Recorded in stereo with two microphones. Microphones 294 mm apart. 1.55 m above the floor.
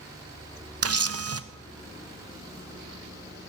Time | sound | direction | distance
0.8 | a camera shutter | 55° right (ahead or behind) | 0.7 m